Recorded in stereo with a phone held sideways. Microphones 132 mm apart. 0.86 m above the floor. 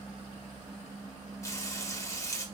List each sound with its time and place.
1.4 s frying: 25° left (ahead or behind), 0.8 m